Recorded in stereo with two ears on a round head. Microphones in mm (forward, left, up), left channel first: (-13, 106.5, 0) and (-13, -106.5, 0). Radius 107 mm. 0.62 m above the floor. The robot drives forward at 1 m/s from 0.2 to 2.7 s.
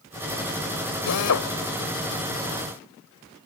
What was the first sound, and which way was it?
A drill, 75° left (ahead or behind).